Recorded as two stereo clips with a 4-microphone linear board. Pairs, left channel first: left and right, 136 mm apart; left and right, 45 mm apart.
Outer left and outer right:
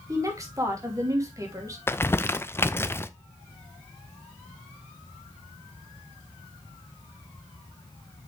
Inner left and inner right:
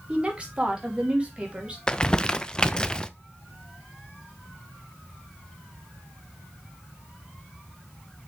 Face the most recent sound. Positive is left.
turn(degrees=15)  # may be behind; listen again after turning